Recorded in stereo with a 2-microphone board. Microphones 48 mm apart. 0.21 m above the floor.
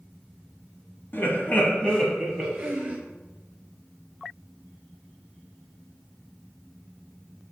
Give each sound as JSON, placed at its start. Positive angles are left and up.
{"t": 1.1, "sound": "laughter", "side_deg": 50, "distance_m": 1.4}